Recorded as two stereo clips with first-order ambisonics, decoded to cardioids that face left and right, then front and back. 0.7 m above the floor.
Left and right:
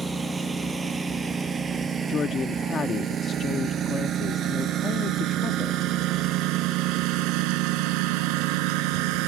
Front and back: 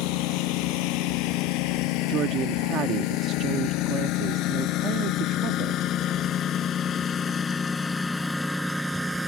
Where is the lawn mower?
10° right; by 9.3 s 95° right.